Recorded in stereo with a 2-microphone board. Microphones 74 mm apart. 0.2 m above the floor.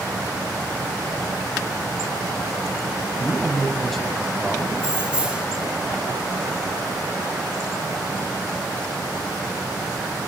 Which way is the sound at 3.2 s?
Centre (ahead or behind).